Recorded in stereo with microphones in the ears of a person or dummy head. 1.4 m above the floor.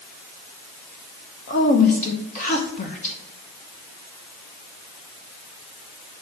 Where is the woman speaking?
40° left (ahead or behind), 1.0 m.